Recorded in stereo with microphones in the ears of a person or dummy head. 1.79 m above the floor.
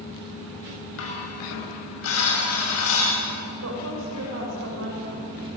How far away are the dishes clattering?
About 6 m.